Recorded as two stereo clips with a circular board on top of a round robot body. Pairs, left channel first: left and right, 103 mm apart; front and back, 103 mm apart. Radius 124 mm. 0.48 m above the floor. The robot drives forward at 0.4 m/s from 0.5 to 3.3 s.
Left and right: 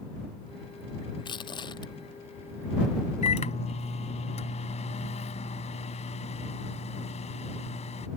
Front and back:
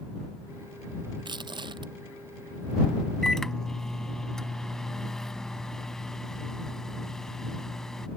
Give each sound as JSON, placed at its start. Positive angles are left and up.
{"t": 1.2, "sound": "crushing", "azimuth_deg": 135}
{"t": 3.2, "sound": "a microwave", "azimuth_deg": 85}